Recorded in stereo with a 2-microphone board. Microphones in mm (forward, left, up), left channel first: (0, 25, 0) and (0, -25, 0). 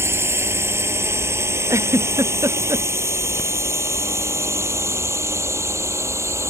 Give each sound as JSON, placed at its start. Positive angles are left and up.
{"t": 0.0, "sound": "a drone", "side_deg": -60}
{"t": 1.7, "sound": "a giggle", "side_deg": -75}